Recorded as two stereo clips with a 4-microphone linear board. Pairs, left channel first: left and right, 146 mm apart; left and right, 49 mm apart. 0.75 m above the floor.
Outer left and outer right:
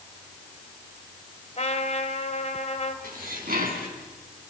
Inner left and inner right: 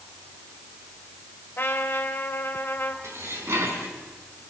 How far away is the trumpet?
About 2.5 m.